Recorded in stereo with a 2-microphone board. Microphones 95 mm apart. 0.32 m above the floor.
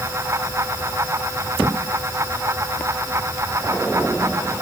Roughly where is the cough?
No cough in this recording.